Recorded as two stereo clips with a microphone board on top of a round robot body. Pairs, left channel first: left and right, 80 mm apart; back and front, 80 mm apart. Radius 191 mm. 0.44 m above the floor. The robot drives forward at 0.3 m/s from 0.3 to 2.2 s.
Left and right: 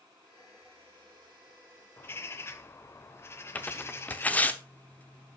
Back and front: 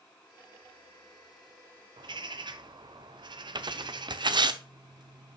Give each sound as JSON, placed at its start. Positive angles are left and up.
{"t": 2.0, "sound": "a bird", "azimuth_deg": 25, "distance_m": 0.8}
{"t": 3.5, "sound": "tearing paper", "azimuth_deg": 20, "distance_m": 0.9}